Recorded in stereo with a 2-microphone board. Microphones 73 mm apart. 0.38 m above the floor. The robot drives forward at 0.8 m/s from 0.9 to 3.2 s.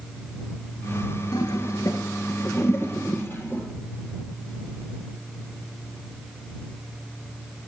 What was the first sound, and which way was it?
A toilet flushing, 70° left (ahead or behind).